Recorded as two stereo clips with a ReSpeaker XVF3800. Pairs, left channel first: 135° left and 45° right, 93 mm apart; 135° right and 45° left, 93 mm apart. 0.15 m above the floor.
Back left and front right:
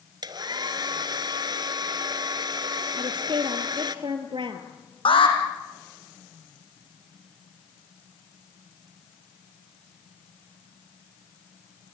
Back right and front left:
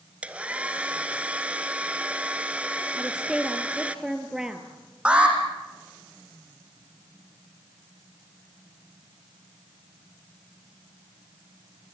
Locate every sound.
0.2 s a hair dryer: 25° right, 1.2 m
3.0 s a woman speaking: 35° right, 3 m
5.0 s an alarm: 125° left, 5 m